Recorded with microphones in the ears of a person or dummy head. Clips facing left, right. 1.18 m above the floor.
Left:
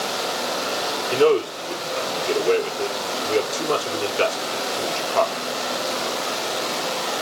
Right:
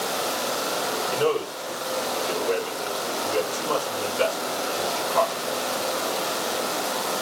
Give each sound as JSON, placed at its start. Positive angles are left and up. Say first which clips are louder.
{"t": 1.1, "sound": "a man speaking", "louder": "left 8 dB", "side_deg": 75, "distance_m": 4.0}